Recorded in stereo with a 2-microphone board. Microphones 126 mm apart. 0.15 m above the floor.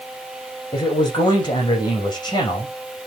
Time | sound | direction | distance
0.7 | a man speaking | 35° left (ahead or behind) | 7 m